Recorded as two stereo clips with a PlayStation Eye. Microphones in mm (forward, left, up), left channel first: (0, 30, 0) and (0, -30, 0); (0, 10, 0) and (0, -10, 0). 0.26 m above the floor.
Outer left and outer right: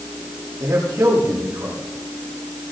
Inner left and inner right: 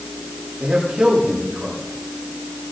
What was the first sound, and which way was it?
A man speaking, 85° right.